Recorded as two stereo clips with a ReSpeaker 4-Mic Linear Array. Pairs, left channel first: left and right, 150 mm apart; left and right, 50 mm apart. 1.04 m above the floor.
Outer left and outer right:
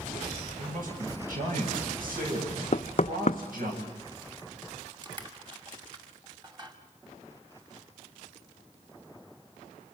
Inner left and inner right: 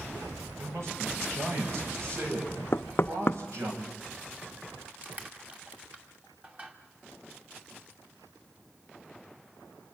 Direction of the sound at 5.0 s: 35° right (ahead or behind).